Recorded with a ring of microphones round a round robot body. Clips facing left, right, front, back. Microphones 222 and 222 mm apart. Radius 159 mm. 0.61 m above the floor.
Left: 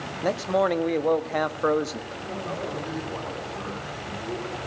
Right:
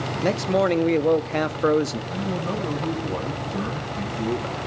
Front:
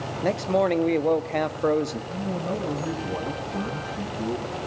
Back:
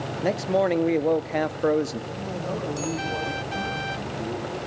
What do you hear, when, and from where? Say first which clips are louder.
0.2 s a man speaking: right 2 dB, even; 100° right, 0.9 m
2.1 s a man speaking: right 6 dB, front 2 dB; 75° right, 5.5 m